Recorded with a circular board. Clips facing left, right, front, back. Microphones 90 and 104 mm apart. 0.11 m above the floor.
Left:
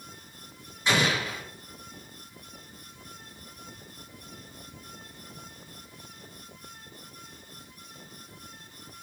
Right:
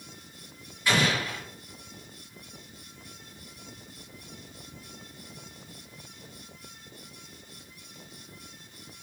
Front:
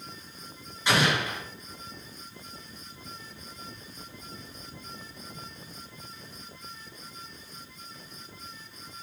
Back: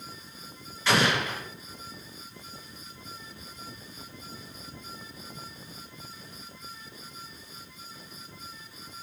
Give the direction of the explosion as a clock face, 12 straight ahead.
10 o'clock.